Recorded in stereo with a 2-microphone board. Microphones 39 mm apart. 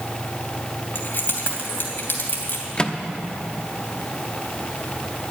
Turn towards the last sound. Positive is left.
turn(degrees=25)  # may be behind; listen again after turning